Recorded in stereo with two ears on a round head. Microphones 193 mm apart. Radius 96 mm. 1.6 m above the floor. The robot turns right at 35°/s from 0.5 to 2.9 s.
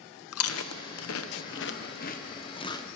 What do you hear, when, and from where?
0.3 s chewing: 75° left (ahead or behind), 1.0 m; by 2.9 s 15° left (ahead or behind), 1.0 m